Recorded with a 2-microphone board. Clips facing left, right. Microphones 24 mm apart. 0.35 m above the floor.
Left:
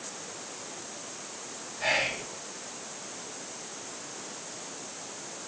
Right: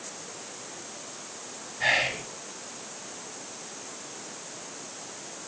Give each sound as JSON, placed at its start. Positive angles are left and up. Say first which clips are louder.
{"t": 1.8, "sound": "whispering", "louder": "right 3 dB", "side_deg": -40, "distance_m": 1.2}